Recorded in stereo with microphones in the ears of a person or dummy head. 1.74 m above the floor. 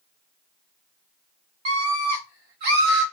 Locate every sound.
1.6 s a scream: 35° right (ahead or behind), 1.3 m; by 3.0 s 65° right (ahead or behind), 1.7 m